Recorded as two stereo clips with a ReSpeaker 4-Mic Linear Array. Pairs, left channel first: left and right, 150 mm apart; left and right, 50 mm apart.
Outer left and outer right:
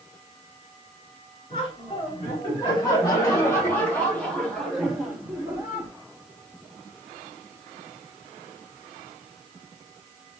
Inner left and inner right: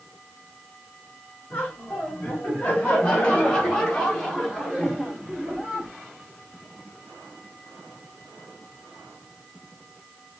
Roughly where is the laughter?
Left.